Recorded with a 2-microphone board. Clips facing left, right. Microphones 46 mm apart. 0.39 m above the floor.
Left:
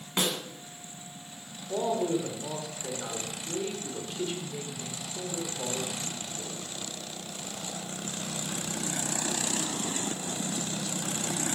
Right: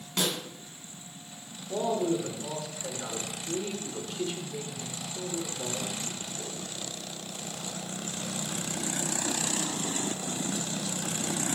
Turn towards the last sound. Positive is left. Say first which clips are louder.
# even
turn(degrees=5)  # may be behind; listen again after turning